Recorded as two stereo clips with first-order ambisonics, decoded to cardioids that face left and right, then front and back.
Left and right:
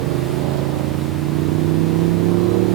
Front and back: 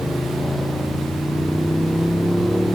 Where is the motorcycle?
85° right; by 2.8 s 90° right.